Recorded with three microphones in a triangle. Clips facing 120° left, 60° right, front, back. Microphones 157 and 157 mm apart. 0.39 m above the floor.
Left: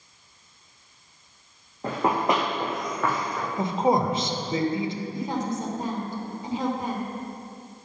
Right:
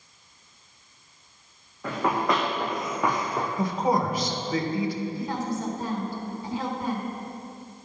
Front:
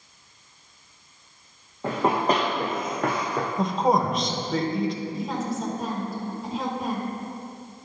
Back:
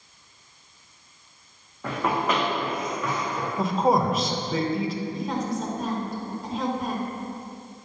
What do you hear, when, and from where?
1.8 s running footsteps: 65° left, 1.6 m; by 3.5 s 5° right, 1.1 m
3.6 s a man speaking: 95° left, 0.8 m
5.1 s a woman speaking: 85° left, 1.3 m